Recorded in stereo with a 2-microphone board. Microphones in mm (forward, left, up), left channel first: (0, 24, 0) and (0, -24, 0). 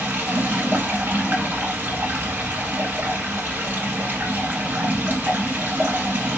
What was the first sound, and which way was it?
Running water, 45° right (ahead or behind).